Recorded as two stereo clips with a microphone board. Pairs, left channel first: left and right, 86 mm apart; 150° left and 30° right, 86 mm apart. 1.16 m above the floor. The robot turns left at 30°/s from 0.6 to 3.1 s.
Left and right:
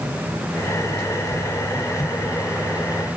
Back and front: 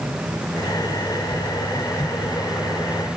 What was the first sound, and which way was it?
Only background noise.